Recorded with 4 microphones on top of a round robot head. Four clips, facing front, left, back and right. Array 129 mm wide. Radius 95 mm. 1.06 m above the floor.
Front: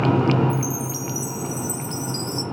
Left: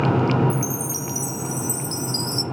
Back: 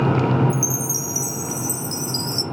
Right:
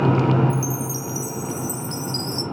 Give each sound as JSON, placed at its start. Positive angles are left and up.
{"t": 0.5, "sound": "a chime", "azimuth_deg": 135, "distance_m": 0.7}